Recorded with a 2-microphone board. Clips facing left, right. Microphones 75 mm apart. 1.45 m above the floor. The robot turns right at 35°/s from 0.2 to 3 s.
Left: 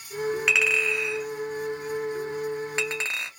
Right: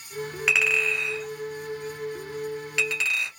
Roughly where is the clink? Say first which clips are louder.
Right 4 dB; centre.